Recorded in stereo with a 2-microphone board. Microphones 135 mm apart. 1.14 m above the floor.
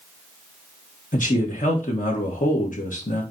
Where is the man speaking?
70° left (ahead or behind), 2 m.